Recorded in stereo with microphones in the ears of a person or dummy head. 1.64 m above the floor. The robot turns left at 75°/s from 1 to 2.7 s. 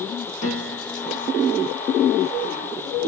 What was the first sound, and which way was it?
A piano, 40° left (ahead or behind).